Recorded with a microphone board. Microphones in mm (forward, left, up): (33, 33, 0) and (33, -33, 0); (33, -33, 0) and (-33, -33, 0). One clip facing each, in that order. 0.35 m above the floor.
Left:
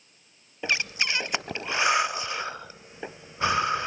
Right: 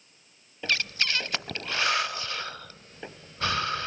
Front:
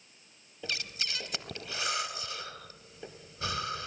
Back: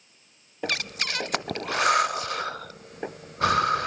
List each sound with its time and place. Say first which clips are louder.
0.6 s breathing: left 1 dB, back 8 dB; 160° left, 0.5 m